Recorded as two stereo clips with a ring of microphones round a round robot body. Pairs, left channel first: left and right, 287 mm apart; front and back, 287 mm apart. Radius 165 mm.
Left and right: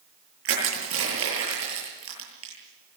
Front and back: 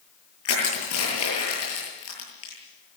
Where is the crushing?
45° right, 10 m.